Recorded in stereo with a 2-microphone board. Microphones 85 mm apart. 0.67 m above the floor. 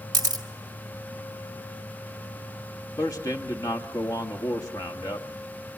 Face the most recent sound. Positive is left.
turn(degrees=45)  # may be behind; listen again after turning